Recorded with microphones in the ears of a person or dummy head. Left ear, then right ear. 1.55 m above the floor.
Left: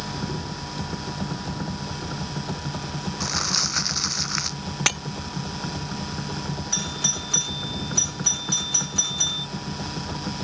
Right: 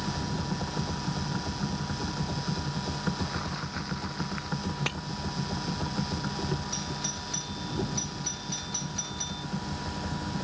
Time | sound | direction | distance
3.2 | crumpling | 80° left | ?
4.9 | breaking glass | 30° left (ahead or behind) | ?
6.7 | a doorbell | 40° left (ahead or behind) | ?